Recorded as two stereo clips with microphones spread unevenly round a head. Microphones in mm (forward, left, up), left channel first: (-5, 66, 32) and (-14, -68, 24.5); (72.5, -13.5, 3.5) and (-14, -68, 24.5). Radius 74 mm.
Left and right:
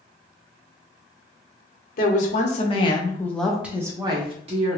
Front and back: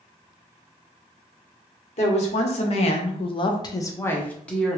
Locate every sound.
2.0 s a woman speaking: 55° left, 1.0 m; by 4.8 s 50° right, 1.1 m